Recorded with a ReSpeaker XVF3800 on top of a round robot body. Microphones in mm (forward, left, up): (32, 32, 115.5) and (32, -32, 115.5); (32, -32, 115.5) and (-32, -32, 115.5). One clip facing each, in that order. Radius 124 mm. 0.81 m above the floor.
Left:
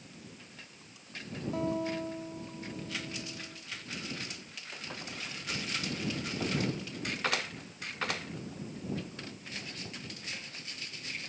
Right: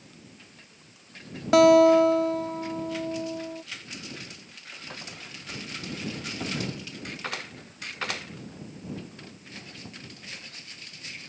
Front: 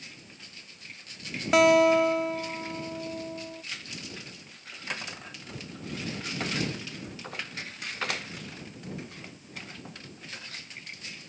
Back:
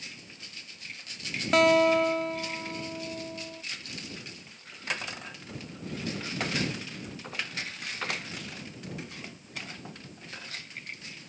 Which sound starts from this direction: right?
A guitar, at 1.5 s.